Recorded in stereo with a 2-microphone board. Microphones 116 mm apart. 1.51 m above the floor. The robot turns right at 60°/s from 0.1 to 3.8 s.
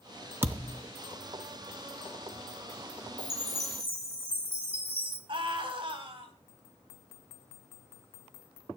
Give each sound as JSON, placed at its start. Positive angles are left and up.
{"t": 0.4, "sound": "a thud", "side_deg": -20, "distance_m": 0.9}
{"t": 3.2, "sound": "a chime", "azimuth_deg": -95, "distance_m": 4.5}
{"t": 5.3, "sound": "a scream", "side_deg": -50, "distance_m": 3.5}